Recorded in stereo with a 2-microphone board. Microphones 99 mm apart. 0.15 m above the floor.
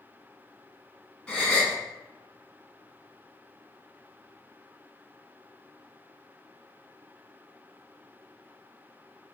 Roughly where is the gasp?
Centre.